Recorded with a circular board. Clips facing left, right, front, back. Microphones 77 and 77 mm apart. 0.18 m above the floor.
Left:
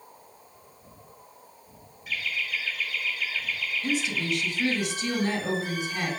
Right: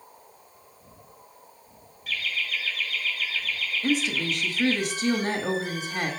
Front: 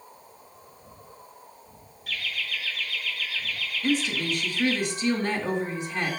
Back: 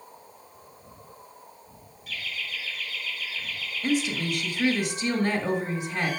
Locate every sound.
2.1 s laughter: 20° left, 2 m
3.8 s a woman speaking: 100° right, 1.2 m